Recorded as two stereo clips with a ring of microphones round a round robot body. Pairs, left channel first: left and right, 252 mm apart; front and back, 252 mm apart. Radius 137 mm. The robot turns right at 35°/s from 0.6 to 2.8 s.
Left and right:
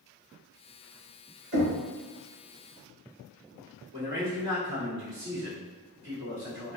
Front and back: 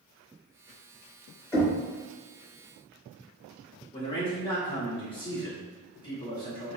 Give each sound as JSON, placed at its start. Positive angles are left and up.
{"t": 1.5, "sound": "knocking", "azimuth_deg": -80, "distance_m": 1.6}
{"t": 3.9, "sound": "a man speaking", "azimuth_deg": -50, "distance_m": 1.5}